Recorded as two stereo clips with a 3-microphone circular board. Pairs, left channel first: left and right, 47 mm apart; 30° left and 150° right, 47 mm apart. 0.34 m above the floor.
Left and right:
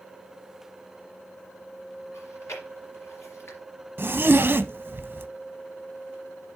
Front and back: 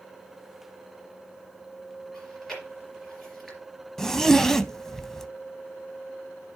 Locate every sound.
2.1 s chewing: 115° left, 3.5 m
4.0 s a zipper: 50° right, 0.5 m